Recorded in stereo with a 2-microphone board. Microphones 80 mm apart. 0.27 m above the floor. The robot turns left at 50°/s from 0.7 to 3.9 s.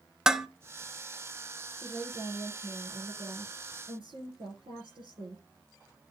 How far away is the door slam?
No door slam in this recording.